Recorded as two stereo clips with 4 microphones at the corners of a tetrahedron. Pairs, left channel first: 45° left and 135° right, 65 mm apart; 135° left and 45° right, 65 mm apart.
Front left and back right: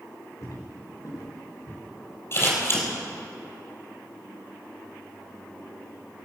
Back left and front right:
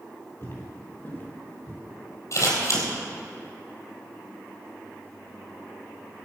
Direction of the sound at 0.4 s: 80° left.